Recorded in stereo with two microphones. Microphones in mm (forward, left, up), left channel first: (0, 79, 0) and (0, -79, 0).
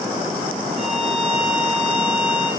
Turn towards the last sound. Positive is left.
turn(degrees=-25)  # may be behind; listen again after turning